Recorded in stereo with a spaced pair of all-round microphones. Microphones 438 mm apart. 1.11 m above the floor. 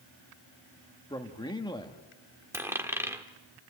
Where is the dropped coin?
5° right (ahead or behind), 1.3 m.